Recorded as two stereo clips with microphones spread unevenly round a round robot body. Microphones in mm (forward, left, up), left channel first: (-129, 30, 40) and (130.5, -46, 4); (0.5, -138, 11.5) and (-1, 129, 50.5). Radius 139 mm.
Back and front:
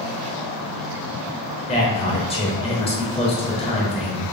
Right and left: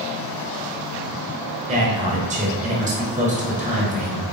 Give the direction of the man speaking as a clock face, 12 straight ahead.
8 o'clock.